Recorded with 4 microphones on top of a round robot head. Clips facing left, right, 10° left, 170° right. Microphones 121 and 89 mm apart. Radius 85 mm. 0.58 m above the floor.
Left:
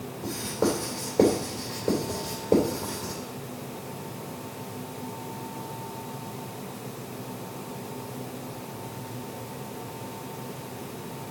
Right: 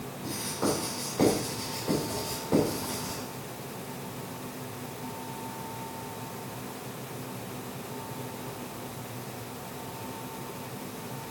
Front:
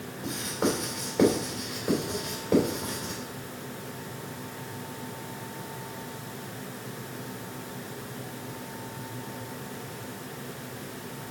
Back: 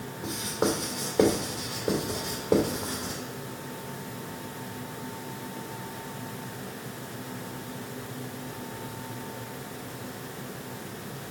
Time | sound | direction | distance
0.2 | writing | 135° left | 2.5 m